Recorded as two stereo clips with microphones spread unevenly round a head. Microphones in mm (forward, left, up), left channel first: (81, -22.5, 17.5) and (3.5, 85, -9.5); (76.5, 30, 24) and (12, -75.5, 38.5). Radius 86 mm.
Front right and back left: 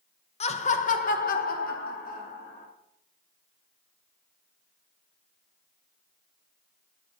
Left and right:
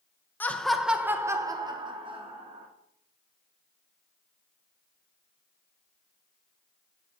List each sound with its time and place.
0.4 s laughter: 20° right, 0.9 m; by 2.7 s 85° right, 1.7 m